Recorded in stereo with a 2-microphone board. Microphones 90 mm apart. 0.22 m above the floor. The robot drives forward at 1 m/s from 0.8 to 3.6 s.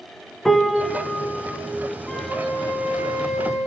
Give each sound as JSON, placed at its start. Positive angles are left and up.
{"t": 0.5, "sound": "a piano", "side_deg": 0, "distance_m": 0.7}
{"t": 2.1, "sound": "a flute", "side_deg": -5, "distance_m": 4.5}